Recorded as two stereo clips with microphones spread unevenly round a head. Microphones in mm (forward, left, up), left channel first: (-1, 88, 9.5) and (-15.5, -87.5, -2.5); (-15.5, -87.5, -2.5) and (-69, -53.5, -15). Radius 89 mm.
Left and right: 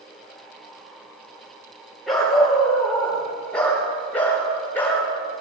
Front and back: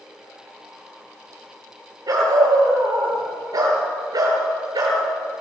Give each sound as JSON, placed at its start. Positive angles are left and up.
{"t": 2.1, "sound": "a dog barking", "azimuth_deg": 175, "distance_m": 9.5}